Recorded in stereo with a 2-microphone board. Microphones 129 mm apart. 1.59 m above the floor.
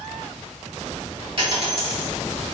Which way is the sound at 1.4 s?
45° right (ahead or behind).